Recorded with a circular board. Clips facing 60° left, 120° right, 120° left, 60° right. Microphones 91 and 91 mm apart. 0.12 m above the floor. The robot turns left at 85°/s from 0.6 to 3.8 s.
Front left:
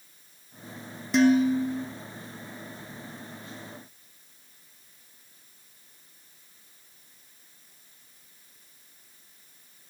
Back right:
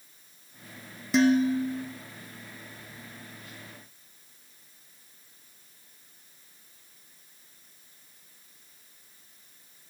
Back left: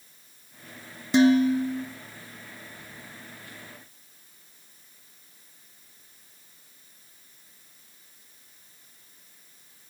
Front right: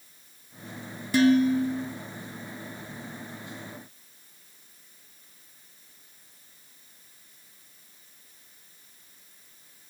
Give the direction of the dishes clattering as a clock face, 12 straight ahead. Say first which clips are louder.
Front left 2 dB, back left 1 dB; 7 o'clock.